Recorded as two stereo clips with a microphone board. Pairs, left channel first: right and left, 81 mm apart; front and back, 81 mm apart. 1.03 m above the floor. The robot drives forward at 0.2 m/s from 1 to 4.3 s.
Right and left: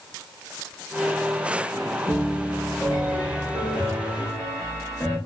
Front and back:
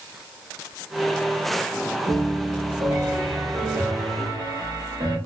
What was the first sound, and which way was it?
A piano, 155° right.